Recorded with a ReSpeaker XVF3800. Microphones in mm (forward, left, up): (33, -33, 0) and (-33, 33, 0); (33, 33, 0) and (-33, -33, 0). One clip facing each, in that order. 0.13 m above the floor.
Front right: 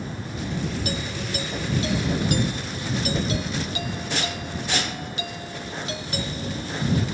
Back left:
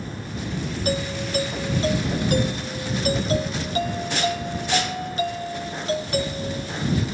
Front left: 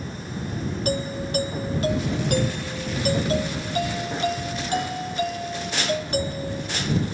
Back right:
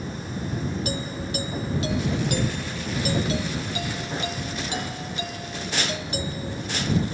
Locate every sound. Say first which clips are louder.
0.8 s a doorbell: back left 4 dB, front left 4 dB; 85° left